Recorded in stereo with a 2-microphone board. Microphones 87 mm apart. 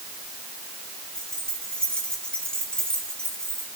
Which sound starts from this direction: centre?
Keys jangling, at 1.1 s.